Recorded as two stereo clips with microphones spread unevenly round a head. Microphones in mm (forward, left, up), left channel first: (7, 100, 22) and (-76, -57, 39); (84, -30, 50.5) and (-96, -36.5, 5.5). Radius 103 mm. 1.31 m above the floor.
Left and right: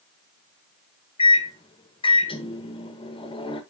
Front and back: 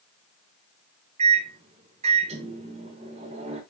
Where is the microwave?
125° left, 1.4 m.